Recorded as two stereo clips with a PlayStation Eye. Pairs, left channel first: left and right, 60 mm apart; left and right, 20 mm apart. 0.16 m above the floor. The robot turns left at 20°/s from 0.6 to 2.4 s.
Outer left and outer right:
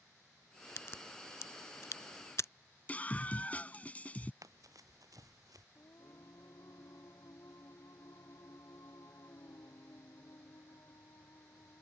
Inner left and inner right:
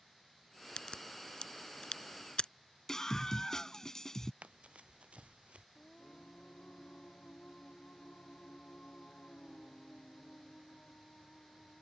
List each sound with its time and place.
0.8 s a crack: 45° left (ahead or behind); by 2.5 s 60° left (ahead or behind)
2.9 s a scream: 25° left (ahead or behind)
4.4 s running footsteps: 70° right (ahead or behind); by 5.7 s 75° right (ahead or behind)
5.8 s singing: 60° left (ahead or behind)